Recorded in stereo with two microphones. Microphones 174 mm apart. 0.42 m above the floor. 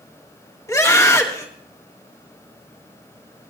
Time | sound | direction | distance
0.7 | a scream | 20° left (ahead or behind) | 1.9 m